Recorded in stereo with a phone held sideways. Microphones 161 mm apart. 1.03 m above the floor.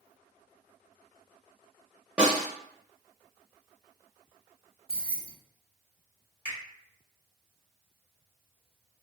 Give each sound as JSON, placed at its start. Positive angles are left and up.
{"t": 2.2, "sound": "a snare drum", "side_deg": -10, "distance_m": 0.9}
{"t": 4.9, "sound": "keys jangling", "side_deg": -35, "distance_m": 0.7}
{"t": 6.5, "sound": "a finger snap", "side_deg": 70, "distance_m": 2.0}